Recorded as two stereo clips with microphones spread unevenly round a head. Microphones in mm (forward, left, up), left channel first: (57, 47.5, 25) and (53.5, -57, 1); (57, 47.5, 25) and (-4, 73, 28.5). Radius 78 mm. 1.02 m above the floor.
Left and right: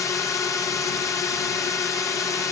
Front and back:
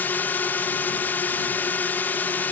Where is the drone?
25° left.